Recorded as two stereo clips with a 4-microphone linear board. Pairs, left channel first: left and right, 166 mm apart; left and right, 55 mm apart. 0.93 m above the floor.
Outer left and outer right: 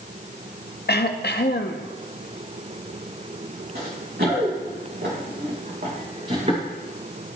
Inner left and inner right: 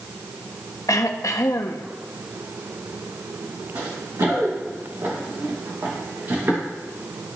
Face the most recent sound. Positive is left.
turn(degrees=-40)  # may be behind; listen again after turning